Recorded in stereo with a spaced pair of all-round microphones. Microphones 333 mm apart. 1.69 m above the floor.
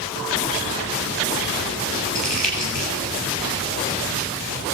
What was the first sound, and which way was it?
Crumpling, 75° right (ahead or behind).